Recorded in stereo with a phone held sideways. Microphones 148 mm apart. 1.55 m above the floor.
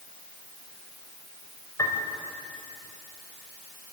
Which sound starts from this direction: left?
A piano, at 1.8 s.